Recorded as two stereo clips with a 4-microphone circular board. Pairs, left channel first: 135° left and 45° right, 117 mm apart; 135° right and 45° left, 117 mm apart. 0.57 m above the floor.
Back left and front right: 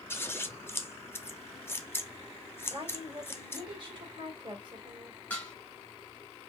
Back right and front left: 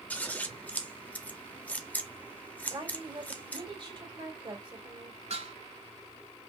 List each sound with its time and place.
0.1 s scissors: 170° left, 0.7 m
2.7 s a woman speaking: straight ahead, 2.5 m
5.3 s dishes clattering: 60° left, 1.9 m